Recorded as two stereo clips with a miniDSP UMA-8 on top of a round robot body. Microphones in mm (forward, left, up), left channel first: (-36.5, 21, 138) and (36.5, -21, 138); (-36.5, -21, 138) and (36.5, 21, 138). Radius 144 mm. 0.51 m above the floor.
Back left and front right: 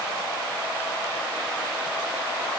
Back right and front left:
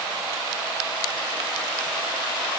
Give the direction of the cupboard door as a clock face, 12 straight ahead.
I don't hear a cupboard door.